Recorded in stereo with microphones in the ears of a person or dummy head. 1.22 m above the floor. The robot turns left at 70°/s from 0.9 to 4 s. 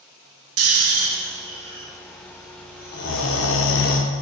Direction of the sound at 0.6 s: 70° right (ahead or behind).